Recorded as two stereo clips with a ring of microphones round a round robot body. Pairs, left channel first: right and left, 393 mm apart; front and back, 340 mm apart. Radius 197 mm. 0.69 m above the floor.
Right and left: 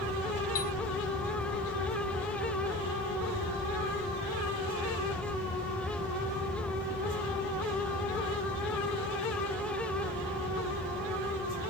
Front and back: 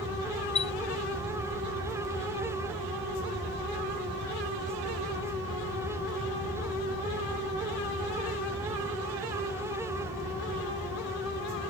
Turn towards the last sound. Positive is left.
turn(degrees=-75)